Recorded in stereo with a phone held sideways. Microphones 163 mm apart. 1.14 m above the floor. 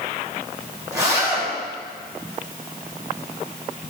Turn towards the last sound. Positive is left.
turn(degrees=-20)  # may be behind; listen again after turning